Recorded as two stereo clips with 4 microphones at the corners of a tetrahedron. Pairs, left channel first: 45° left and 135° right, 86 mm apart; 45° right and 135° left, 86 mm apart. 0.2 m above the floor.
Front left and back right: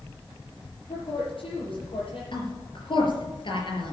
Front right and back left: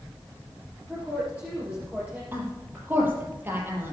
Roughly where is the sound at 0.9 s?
Ahead left.